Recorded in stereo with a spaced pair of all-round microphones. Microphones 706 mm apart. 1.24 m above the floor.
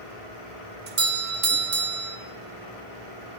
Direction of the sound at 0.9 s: 50° right (ahead or behind).